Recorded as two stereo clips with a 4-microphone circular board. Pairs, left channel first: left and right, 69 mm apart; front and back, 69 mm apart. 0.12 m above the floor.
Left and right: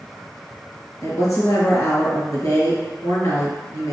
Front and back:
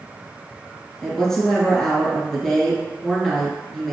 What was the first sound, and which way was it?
A woman speaking, 80° left.